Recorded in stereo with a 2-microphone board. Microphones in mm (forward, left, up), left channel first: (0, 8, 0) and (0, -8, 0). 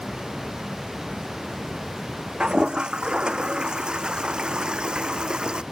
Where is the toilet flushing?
75° right (ahead or behind).